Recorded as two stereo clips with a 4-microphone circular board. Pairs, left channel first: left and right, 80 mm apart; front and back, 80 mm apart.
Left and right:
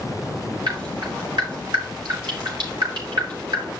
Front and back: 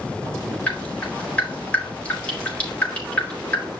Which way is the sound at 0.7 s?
75° right.